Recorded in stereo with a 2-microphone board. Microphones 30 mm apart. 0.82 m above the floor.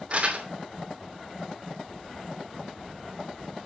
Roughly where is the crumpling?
Right.